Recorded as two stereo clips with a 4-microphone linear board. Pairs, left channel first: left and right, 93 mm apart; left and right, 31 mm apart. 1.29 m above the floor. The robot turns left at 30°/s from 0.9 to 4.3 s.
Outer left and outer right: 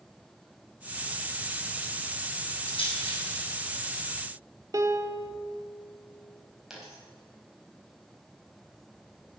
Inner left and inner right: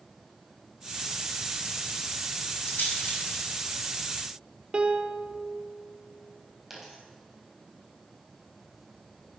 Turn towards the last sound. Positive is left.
turn(degrees=-5)  # may be behind; listen again after turning